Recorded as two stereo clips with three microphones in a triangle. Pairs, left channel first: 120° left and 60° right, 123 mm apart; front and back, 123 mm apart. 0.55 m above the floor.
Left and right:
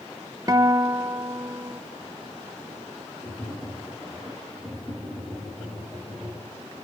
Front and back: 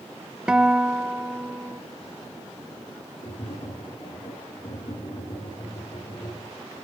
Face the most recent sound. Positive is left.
turn(degrees=40)